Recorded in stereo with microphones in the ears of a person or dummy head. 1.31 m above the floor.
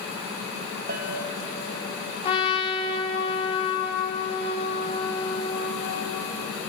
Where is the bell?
55° right (ahead or behind), 1.9 m.